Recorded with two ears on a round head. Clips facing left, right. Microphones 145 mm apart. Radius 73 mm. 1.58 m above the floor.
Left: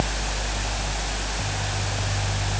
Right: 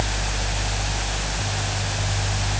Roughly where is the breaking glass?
No breaking glass in this recording.